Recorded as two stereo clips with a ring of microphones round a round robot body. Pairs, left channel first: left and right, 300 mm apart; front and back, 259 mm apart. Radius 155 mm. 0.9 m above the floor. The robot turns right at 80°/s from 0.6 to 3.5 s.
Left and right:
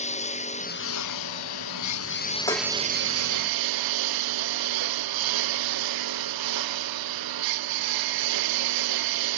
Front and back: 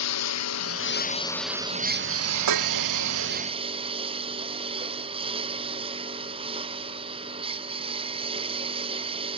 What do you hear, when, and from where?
0.0 s a lawn mower: 20° left; by 9.4 s 105° right
2.5 s dishes clattering: 165° left; by 2.8 s 175° right